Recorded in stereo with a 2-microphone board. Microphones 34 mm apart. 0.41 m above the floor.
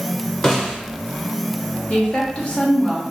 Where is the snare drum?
15° left (ahead or behind), 0.9 m.